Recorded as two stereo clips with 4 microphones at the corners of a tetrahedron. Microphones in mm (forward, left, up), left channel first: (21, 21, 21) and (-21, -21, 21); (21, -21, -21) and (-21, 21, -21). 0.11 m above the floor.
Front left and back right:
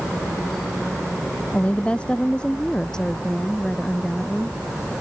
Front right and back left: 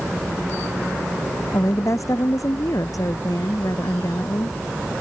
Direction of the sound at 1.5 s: 25° right.